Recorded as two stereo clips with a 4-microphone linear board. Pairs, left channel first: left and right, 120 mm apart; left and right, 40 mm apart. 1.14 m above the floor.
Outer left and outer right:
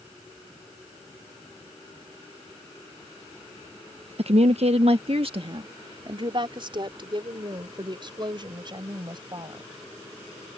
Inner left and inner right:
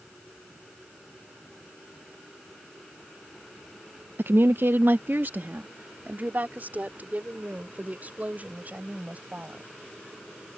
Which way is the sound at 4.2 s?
60° right (ahead or behind).